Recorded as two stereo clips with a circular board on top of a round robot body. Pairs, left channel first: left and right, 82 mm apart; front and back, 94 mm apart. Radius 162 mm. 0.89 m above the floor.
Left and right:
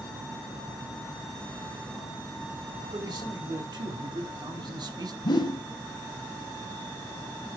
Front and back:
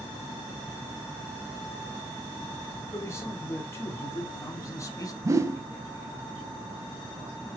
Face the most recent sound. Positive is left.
turn(degrees=120)